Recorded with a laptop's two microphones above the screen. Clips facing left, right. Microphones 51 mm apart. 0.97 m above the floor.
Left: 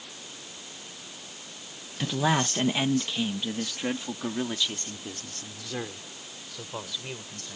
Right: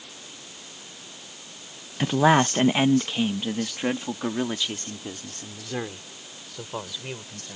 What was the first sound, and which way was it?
A man speaking, 30° right (ahead or behind).